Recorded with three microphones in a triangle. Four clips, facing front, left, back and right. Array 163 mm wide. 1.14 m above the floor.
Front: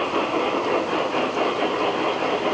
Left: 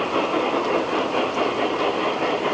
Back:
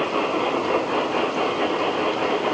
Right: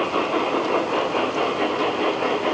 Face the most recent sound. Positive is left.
No sound to turn to.